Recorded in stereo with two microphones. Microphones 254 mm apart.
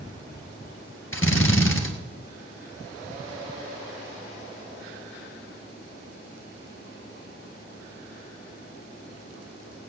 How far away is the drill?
About 1.6 m.